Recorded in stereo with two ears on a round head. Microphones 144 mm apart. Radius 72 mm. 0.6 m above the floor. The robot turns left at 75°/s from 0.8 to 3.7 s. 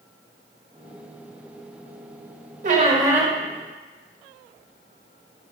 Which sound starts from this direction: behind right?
A squeak, at 2.6 s.